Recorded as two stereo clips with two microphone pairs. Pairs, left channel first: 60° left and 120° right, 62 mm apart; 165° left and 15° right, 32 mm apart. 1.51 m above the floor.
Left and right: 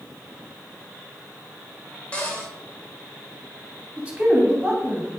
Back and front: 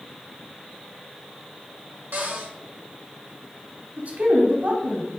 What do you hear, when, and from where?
2.1 s a cupboard door: 10° right, 3 m
4.0 s a man speaking: 40° right, 2.5 m